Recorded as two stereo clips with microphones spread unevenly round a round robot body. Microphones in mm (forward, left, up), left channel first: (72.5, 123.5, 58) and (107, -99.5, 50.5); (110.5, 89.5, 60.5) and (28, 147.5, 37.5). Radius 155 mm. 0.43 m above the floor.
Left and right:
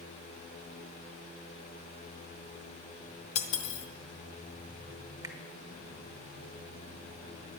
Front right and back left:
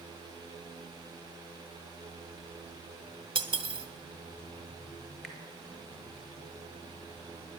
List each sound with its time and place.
3.4 s cutlery clinking: 120° left, 0.7 m
5.2 s a finger snap: 140° right, 0.7 m